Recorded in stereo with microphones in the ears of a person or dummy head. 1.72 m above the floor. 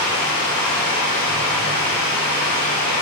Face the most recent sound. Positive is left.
turn(degrees=25)  # may be behind; listen again after turning